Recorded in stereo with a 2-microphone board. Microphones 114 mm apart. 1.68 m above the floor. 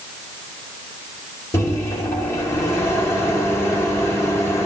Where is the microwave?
25° left (ahead or behind), 1.2 m.